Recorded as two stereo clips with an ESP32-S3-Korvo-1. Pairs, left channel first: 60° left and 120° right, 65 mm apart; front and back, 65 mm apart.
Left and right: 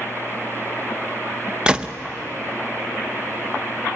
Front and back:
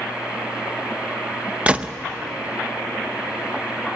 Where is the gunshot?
165° right, 0.6 m.